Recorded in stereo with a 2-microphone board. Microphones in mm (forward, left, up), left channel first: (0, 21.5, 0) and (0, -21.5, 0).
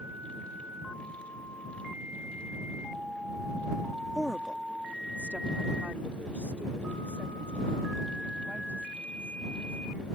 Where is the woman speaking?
5° right (ahead or behind); by 10.1 s 30° right (ahead or behind).